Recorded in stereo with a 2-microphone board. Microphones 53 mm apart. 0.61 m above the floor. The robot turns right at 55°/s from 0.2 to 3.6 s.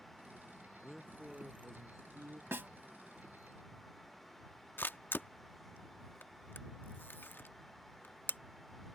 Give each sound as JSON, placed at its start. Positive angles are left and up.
{"t": 0.8, "sound": "a man speaking", "azimuth_deg": 170}
{"t": 2.5, "sound": "a snare drum", "side_deg": -45}
{"t": 4.8, "sound": "a camera shutter", "side_deg": 40}